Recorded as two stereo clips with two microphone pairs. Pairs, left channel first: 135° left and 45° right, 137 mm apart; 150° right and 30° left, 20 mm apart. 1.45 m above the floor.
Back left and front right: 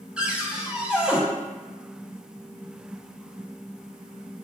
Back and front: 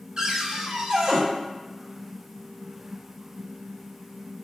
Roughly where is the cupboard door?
Ahead left.